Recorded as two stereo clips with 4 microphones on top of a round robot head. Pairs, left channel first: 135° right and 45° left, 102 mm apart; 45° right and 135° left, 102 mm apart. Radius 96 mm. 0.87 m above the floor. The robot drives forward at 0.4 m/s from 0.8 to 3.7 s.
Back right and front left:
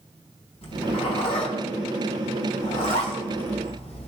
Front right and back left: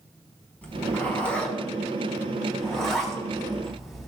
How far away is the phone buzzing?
I don't hear a phone buzzing.